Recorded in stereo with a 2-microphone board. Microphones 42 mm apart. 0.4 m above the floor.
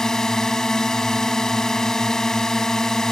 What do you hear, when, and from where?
0.0 s a drone: 15° left (ahead or behind)